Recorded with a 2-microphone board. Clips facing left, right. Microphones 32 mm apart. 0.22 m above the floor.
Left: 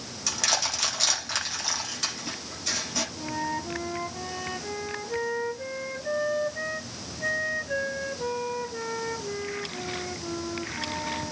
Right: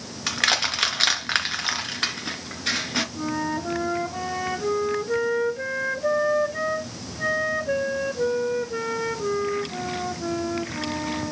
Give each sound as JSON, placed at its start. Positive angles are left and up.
{"t": 0.3, "sound": "crushing", "side_deg": -45, "distance_m": 2.0}
{"t": 3.1, "sound": "a flute", "side_deg": -85, "distance_m": 8.0}